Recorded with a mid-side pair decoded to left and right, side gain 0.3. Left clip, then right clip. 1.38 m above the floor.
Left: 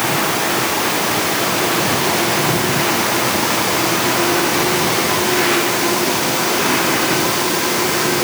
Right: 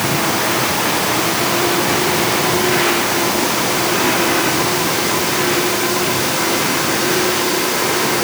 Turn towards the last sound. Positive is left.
No sound to turn to.